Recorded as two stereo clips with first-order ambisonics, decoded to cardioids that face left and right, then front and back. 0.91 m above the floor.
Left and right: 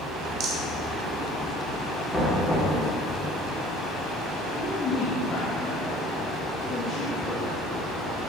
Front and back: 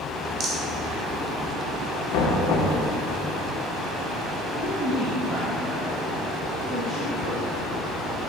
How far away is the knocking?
About 1.6 m.